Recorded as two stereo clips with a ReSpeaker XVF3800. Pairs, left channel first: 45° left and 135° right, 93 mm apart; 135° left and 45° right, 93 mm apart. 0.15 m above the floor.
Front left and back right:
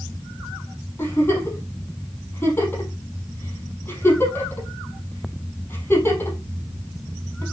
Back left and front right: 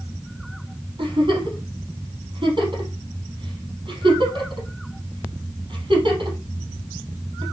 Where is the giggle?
15° right, 4 m.